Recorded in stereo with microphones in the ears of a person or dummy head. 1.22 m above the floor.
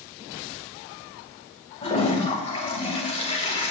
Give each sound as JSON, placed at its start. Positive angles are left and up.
{"t": 1.8, "sound": "a toilet flushing", "side_deg": 30, "distance_m": 3.5}